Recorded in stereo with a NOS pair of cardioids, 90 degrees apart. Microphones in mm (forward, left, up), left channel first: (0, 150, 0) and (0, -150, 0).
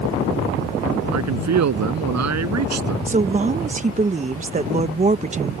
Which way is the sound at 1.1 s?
60° right.